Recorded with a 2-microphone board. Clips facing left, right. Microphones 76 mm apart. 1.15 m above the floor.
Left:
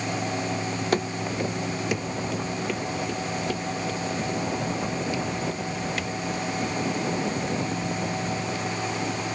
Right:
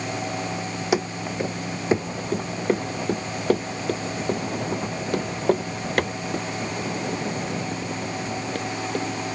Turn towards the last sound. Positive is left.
turn(degrees=-55)  # may be behind; listen again after turning